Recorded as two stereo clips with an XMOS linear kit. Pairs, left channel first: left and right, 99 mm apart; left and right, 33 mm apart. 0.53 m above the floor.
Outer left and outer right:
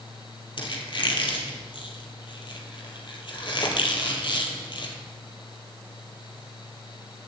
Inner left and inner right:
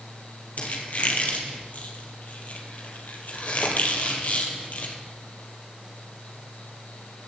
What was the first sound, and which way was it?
A squeak, 55° left (ahead or behind).